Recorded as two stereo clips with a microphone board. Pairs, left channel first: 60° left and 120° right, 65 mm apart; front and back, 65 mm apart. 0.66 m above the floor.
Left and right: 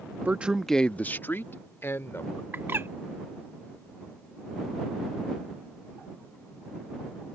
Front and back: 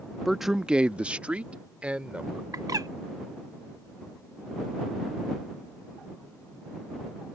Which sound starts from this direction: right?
A man speaking, at 0.2 s.